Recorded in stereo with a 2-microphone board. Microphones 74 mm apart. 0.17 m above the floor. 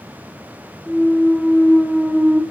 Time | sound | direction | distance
0.9 | a clunk | centre (ahead or behind) | 1.8 m